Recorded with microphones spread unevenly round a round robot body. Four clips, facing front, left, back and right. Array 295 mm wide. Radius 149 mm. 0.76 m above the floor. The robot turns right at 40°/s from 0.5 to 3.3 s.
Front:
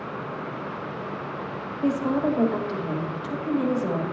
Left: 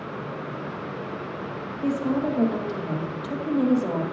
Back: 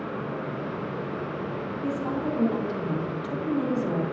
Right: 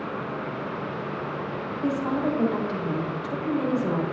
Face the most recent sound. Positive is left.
turn(degrees=60)